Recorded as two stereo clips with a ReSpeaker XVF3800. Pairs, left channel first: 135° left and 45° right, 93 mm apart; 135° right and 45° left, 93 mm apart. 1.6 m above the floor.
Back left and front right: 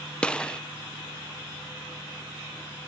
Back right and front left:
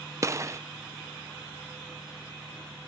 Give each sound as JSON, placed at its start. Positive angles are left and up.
{"t": 0.2, "sound": "a gunshot", "azimuth_deg": 65}